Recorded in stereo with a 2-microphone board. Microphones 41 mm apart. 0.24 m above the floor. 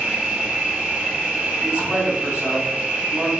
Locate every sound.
0.0 s an insect: 35° right (ahead or behind), 1.4 m
1.6 s a man speaking: 30° right (ahead or behind), 1.7 m